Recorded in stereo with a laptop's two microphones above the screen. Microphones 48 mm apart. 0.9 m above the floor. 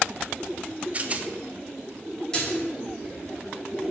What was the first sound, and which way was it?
A rattle, 30° right (ahead or behind).